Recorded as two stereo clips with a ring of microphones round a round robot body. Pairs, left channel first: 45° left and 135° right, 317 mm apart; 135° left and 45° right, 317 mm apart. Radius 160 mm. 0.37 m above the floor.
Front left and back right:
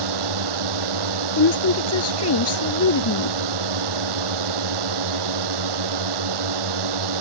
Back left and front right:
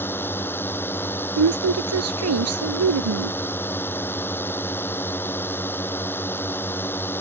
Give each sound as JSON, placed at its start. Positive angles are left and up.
{"t": 0.0, "sound": "a drone", "azimuth_deg": -140}
{"t": 1.4, "sound": "a woman speaking", "azimuth_deg": 0}